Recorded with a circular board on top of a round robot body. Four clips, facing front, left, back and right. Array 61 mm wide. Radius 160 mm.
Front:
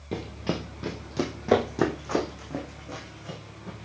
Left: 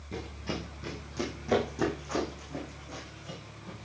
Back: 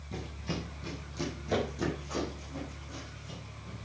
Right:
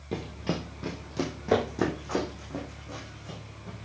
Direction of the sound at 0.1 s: 35° right.